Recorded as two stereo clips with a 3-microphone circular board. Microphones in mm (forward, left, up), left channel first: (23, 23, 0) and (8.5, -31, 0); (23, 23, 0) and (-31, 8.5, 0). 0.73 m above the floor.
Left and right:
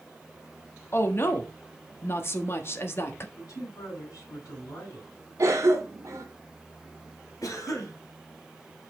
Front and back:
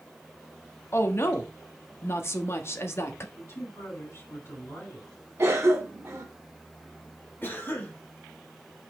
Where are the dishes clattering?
I don't hear dishes clattering.